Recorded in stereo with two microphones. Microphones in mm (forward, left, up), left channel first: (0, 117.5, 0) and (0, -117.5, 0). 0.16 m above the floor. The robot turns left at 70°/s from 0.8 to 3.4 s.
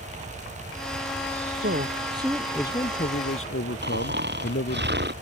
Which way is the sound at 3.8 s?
45° right (ahead or behind).